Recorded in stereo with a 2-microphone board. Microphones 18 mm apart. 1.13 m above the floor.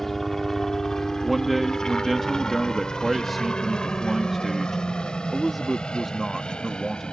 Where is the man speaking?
Centre (ahead or behind).